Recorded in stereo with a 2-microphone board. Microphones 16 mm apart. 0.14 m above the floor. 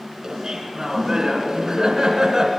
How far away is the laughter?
About 1.4 m.